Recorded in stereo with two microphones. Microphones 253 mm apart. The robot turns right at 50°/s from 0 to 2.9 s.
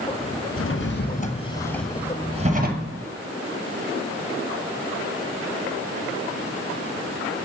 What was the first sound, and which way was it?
A drawer, 115° left.